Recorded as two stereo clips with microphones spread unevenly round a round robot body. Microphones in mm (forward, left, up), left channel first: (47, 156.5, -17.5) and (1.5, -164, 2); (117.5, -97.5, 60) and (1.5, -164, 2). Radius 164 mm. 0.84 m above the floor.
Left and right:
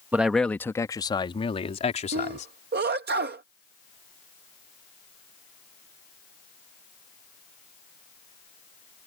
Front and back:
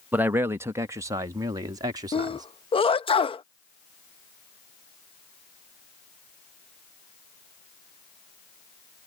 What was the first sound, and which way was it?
A man speaking, 175° left.